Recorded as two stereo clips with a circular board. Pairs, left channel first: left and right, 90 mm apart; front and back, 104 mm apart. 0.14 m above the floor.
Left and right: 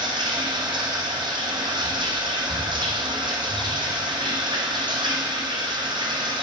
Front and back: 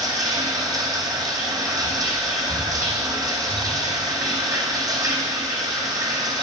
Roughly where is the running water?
Behind right.